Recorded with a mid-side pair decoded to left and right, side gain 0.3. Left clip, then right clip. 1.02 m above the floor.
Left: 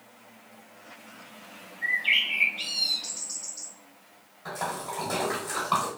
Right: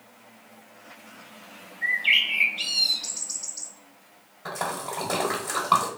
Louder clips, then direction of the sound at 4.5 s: Right 2 dB; 60° right.